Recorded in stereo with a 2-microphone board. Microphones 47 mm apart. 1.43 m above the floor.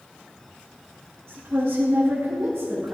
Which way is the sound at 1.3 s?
70° right (ahead or behind).